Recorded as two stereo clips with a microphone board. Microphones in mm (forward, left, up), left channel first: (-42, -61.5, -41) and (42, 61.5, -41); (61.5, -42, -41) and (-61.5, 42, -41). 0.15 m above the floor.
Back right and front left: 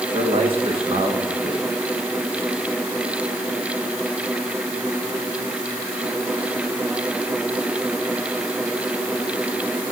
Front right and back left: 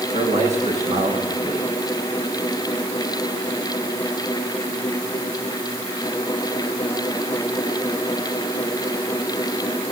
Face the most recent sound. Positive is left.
turn(degrees=110)